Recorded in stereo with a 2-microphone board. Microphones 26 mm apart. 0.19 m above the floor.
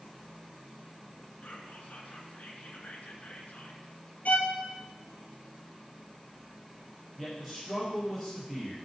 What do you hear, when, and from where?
1.4 s whispering: 60° left (ahead or behind), 2.5 m
4.2 s a violin: 70° left (ahead or behind), 1.2 m
7.2 s a man speaking: 5° right (ahead or behind), 4.5 m